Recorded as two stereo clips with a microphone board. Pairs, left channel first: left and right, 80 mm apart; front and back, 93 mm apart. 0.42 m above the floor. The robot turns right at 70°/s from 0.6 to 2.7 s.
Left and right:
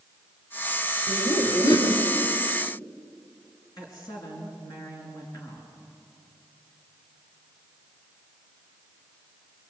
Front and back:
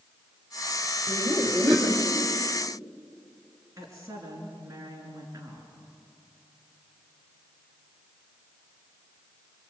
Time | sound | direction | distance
1.1 | laughter | 40° left | 2.5 m
3.8 | a woman speaking | 125° left | 5.5 m